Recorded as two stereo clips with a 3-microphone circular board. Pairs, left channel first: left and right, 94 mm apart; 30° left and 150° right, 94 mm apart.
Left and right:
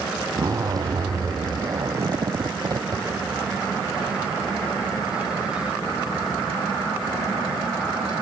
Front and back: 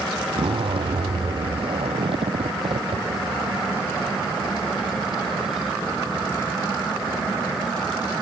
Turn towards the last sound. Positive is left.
turn(degrees=-140)